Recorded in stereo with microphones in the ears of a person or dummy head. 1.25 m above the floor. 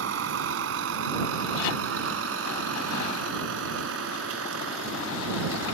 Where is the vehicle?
80° right; by 5.7 s 85° right.